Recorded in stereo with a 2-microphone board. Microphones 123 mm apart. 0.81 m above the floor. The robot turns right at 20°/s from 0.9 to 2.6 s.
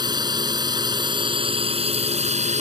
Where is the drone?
145° right; by 2.6 s 110° right.